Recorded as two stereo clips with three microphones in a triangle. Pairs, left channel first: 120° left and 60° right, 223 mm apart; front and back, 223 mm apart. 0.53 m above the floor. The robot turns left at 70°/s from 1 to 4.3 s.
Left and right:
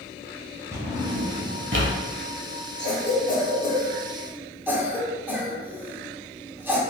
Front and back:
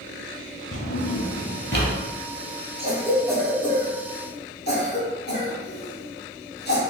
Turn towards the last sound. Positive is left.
turn(degrees=20)